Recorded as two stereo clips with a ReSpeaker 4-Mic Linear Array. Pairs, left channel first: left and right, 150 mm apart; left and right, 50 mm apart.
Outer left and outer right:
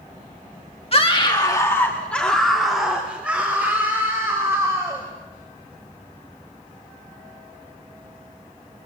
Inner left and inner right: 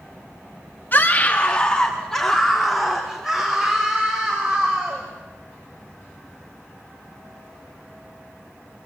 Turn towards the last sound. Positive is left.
turn(degrees=-20)  # may be behind; listen again after turning